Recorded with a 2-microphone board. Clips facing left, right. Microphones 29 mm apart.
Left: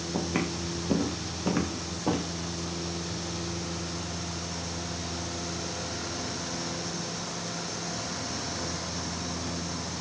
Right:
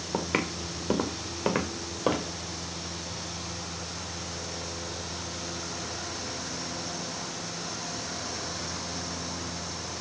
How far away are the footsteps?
About 4 m.